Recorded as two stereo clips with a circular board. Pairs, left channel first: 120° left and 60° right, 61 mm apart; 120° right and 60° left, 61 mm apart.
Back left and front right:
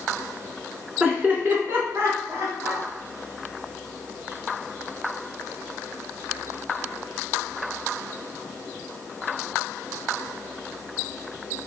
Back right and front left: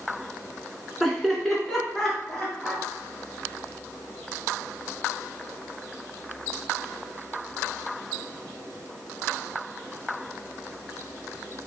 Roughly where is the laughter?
Ahead right.